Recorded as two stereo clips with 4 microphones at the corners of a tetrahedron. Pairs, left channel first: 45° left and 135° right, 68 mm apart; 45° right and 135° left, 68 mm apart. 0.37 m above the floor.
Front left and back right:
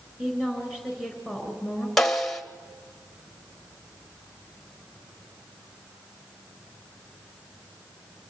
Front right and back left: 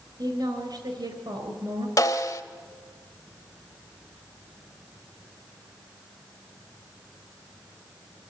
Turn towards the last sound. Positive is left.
turn(degrees=-35)